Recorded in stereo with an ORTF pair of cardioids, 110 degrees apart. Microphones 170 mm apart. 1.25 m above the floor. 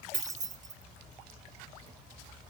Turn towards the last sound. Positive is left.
turn(degrees=-45)